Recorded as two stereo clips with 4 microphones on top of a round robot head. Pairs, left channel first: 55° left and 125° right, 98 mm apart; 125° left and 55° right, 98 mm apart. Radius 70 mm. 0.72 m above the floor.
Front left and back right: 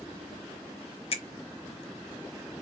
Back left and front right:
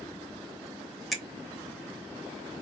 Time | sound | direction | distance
1.1 | a finger snap | 35° left | 1.2 m